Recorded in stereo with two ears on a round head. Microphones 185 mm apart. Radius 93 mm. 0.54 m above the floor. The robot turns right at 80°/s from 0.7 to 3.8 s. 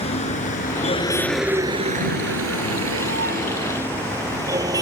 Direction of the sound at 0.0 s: 30° left (ahead or behind).